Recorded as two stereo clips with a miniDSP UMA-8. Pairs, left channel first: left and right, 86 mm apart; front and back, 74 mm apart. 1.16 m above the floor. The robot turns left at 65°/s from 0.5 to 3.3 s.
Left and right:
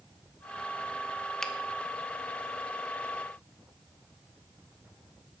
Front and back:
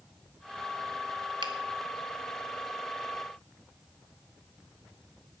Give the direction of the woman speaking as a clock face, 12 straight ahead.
No woman speaking in this recording.